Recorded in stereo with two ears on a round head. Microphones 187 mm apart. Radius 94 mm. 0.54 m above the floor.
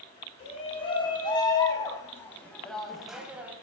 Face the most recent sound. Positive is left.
turn(degrees=-10)  # may be behind; listen again after turning